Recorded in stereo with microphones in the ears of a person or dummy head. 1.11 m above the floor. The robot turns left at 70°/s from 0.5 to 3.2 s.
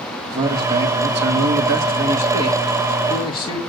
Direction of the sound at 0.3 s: 15° right.